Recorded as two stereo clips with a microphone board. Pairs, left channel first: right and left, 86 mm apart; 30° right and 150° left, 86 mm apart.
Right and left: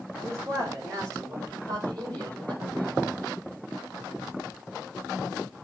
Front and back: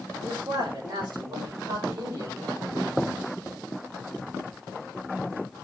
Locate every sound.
0.2 s a man speaking: 135° left, 5 m; by 3.0 s 115° left, 4.5 m